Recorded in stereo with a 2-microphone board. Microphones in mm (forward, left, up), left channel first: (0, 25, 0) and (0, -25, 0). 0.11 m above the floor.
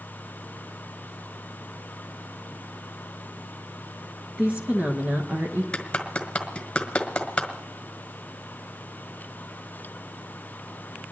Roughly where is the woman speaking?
Right.